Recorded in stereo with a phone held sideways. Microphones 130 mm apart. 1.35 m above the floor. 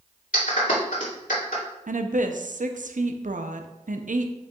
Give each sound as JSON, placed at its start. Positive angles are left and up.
{"t": 0.3, "sound": "a clap", "side_deg": 80, "distance_m": 2.5}
{"t": 1.9, "sound": "a woman speaking", "side_deg": -80, "distance_m": 0.7}